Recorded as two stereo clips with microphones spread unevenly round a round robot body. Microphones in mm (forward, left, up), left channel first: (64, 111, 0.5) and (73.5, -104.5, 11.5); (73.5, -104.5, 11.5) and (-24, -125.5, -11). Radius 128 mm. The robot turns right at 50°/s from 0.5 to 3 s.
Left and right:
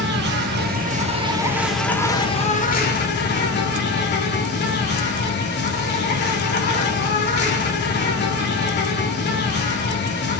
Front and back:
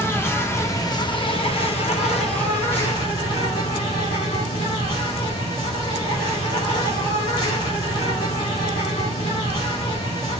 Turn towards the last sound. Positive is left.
turn(degrees=65)